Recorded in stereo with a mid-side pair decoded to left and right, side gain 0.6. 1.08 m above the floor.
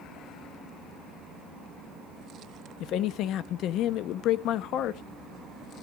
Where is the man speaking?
60° left, 1.0 m.